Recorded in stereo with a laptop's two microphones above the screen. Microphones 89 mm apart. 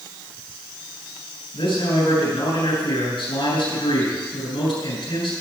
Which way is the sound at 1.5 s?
80° left.